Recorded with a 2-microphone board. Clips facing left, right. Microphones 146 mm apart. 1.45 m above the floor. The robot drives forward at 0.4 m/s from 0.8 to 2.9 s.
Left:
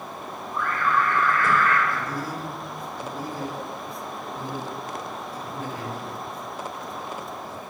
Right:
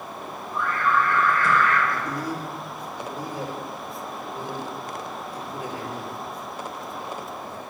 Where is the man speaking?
20° right (ahead or behind), 2.5 m; by 7.6 s 15° right (ahead or behind), 3 m.